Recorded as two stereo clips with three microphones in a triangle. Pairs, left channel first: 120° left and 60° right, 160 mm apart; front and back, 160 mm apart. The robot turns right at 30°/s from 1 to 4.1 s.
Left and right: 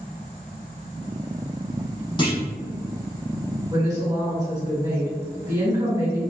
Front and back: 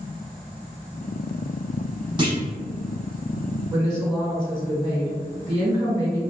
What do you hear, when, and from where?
2.2 s a clunk: 145° left, 0.7 m; by 2.4 s 150° left, 0.7 m
3.7 s a woman speaking: 120° right, 1.9 m; by 6.2 s 110° right, 1.9 m